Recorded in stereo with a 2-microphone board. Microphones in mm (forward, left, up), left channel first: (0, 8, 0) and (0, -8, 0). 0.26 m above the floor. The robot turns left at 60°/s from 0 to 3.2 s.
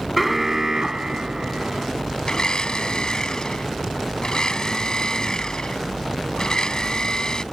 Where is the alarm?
Straight ahead; by 1.9 s 105° right.